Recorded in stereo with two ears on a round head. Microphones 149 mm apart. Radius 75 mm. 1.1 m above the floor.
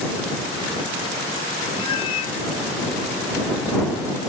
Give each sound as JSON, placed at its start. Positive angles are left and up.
{"t": 1.8, "sound": "a cat meowing", "side_deg": 30}